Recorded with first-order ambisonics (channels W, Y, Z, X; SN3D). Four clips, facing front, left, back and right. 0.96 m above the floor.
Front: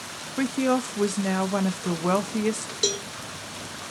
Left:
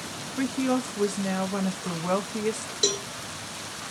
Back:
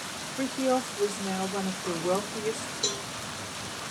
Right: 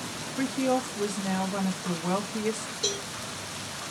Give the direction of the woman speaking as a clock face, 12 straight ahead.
12 o'clock.